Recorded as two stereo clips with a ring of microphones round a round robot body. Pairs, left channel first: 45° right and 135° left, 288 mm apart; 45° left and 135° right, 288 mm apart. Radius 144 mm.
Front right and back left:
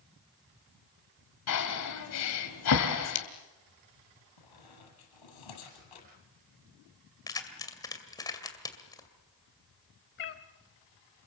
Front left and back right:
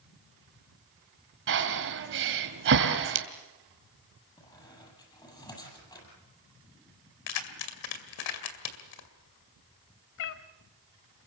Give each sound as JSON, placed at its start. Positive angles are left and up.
{"t": 1.5, "sound": "breathing", "azimuth_deg": -85, "distance_m": 2.5}
{"t": 4.4, "sound": "a squeak", "azimuth_deg": -30, "distance_m": 7.5}
{"t": 7.3, "sound": "keys jangling", "azimuth_deg": 35, "distance_m": 2.5}
{"t": 10.2, "sound": "a cat meowing", "azimuth_deg": 10, "distance_m": 1.4}